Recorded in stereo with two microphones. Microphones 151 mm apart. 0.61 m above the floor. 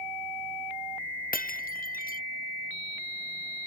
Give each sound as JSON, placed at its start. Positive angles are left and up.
{"t": 1.3, "sound": "breaking glass", "side_deg": 70}